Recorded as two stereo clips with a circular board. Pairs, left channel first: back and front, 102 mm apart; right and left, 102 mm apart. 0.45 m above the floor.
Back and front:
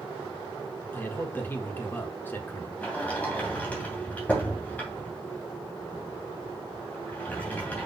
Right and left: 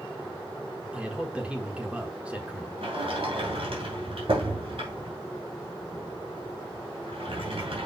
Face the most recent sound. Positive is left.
turn(degrees=105)